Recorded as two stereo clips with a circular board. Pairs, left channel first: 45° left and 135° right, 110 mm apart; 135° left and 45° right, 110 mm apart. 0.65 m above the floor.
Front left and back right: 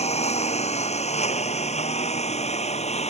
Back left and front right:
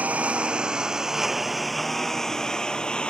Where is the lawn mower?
30° left; by 3.1 s 55° left.